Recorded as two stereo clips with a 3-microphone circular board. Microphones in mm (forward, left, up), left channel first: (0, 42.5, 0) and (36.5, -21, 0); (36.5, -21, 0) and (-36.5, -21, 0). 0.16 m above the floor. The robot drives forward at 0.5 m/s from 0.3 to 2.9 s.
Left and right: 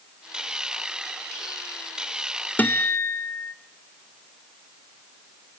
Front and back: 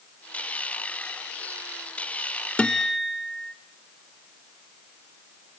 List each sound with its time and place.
2.6 s a guitar: 65° left, 0.5 m; by 3.5 s 90° left, 0.5 m